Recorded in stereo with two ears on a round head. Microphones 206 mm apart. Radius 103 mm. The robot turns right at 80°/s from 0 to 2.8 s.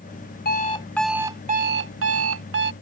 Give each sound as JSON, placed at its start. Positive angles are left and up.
{"t": 0.5, "sound": "an alarm clock", "azimuth_deg": 130}